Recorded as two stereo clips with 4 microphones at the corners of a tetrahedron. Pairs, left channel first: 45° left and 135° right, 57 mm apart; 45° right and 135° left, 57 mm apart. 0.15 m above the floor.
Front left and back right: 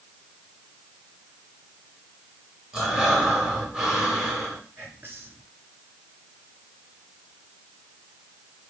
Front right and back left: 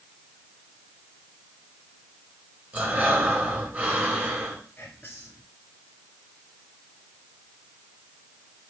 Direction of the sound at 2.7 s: 150° left.